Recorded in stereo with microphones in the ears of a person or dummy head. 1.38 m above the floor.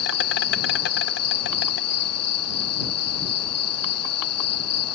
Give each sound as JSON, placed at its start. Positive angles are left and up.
{"t": 0.0, "sound": "an insect", "side_deg": 75}